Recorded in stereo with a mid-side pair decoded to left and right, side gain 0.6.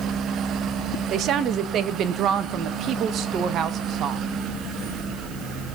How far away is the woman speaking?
About 1.6 m.